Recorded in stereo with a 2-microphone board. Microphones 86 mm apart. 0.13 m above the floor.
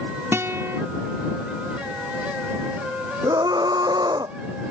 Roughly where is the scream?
Right.